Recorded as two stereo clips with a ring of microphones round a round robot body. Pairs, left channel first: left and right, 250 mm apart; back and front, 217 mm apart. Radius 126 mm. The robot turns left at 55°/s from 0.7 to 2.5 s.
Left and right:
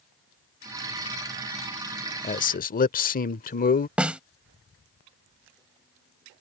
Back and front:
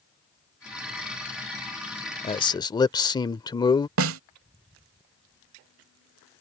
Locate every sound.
2.2 s a man speaking: 135° left; by 3.9 s 120° left
4.0 s a snare drum: 5° right